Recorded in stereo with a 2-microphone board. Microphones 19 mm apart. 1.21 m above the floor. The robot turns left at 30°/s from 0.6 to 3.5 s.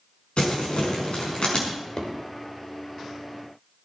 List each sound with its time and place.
0.4 s crumpling: 75° left (ahead or behind), 5.5 m; by 1.6 s 50° left (ahead or behind), 5.5 m
1.7 s a drawer: 50° left (ahead or behind), 3 m; by 2.1 s 40° left (ahead or behind), 3 m